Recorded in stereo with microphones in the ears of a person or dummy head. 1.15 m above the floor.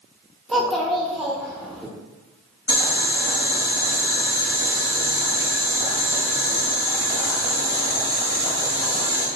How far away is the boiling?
About 1.5 m.